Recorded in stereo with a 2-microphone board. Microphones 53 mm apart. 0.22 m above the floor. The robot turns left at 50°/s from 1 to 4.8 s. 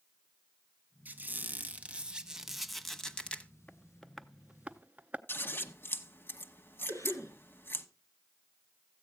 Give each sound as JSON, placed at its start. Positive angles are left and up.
{"t": 1.1, "sound": "a squeak", "azimuth_deg": -100, "distance_m": 0.9}
{"t": 3.7, "sound": "tapping", "side_deg": 25, "distance_m": 0.6}
{"t": 5.3, "sound": "scissors", "side_deg": 45, "distance_m": 1.0}
{"t": 6.9, "sound": "a cough", "side_deg": 70, "distance_m": 6.0}